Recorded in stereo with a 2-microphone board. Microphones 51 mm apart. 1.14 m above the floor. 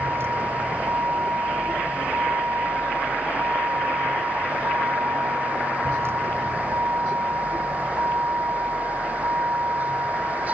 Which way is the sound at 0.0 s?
50° right (ahead or behind).